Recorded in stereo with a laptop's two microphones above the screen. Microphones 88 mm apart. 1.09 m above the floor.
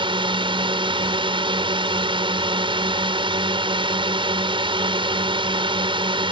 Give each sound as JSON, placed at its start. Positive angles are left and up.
{"t": 0.0, "sound": "a drone", "side_deg": -75}